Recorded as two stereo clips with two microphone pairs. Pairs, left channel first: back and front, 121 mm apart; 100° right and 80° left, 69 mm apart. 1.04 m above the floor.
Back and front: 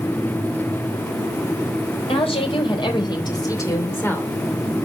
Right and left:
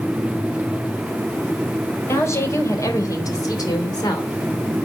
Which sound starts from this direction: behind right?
A woman speaking, at 2.1 s.